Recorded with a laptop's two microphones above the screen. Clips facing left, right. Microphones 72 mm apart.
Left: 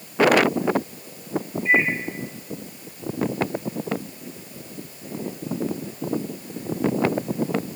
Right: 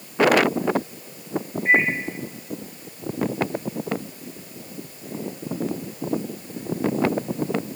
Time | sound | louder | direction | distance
1.6 | a microwave | right 1 dB | 55° right (ahead or behind) | 2.5 m